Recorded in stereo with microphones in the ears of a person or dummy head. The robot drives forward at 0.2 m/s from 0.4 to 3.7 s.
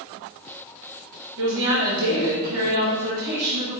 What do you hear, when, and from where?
1.4 s a woman speaking: 70° right (ahead or behind), 1.5 m; by 3.8 s 80° right, 1.4 m